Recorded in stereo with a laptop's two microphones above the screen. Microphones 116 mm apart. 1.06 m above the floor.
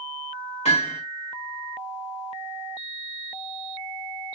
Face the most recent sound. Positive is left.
turn(degrees=70)  # may be behind; listen again after turning